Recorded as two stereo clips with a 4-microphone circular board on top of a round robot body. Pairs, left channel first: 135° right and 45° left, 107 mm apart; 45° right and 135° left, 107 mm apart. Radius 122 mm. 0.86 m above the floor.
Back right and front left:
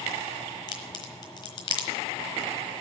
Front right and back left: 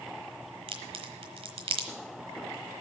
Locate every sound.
0.7 s a crack: 175° left, 1.1 m